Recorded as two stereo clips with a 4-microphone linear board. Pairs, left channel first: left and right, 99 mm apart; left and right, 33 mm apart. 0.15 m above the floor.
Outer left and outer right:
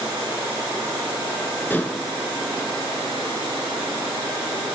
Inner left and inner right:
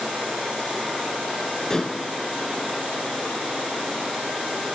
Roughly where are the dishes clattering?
Left.